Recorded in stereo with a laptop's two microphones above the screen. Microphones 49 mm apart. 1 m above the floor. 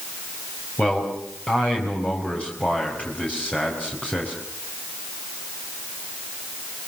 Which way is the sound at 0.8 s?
25° left (ahead or behind).